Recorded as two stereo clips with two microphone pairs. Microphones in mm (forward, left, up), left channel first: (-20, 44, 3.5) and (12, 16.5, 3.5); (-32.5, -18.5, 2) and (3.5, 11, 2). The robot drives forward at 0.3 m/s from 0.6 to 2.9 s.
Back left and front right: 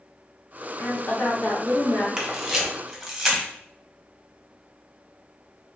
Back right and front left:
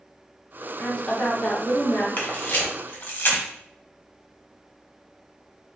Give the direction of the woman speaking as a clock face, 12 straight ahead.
7 o'clock.